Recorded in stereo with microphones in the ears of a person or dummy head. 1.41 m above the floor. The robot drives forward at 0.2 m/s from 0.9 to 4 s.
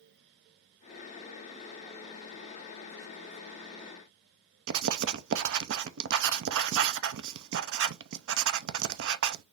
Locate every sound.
4.7 s writing: 70° right (ahead or behind), 0.6 m